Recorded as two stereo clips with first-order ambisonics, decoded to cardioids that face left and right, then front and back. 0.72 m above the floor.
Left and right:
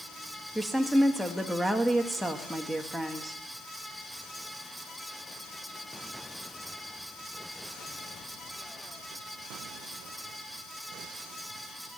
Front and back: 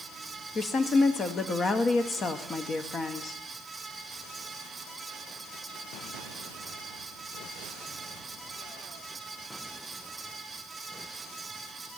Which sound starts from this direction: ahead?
A woman speaking, at 0.6 s.